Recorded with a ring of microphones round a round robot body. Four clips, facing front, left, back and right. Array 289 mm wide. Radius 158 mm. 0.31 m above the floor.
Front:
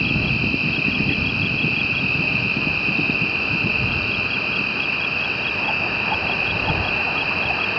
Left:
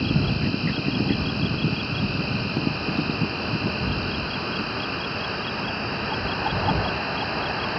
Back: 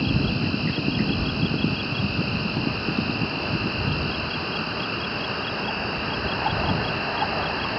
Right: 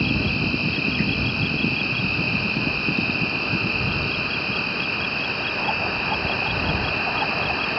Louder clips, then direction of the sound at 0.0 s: Even, even; 25° right.